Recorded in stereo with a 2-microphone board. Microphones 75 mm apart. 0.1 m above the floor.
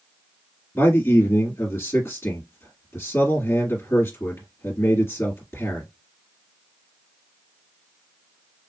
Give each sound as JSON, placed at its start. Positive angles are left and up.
{"t": 0.8, "sound": "a man speaking", "side_deg": 35, "distance_m": 2.0}